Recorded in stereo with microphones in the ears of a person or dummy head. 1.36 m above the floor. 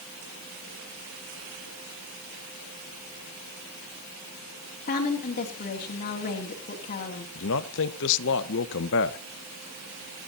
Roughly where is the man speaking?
Left.